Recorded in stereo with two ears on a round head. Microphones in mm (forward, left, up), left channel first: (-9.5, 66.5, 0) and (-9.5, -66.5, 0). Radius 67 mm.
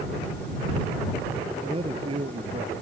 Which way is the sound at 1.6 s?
40° right (ahead or behind).